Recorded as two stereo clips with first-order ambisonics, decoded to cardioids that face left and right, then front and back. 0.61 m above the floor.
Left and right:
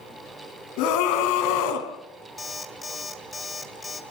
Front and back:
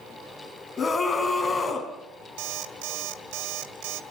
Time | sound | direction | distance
0.8 | a scream | 80° left | 5 m
2.4 | an alarm clock | 170° left | 2 m